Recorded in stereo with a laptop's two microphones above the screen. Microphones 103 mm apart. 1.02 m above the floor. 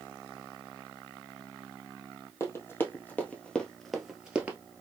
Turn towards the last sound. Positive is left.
turn(degrees=-15)  # may be behind; listen again after turning